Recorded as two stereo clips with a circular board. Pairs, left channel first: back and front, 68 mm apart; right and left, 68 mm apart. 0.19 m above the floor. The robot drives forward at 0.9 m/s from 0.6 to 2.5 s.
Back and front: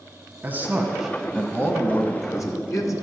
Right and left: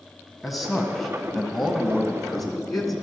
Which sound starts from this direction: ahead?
A man speaking, at 0.4 s.